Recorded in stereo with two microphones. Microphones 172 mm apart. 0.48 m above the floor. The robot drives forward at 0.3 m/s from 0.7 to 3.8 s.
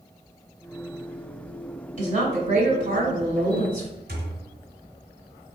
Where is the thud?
75° right (ahead or behind), 1.9 m.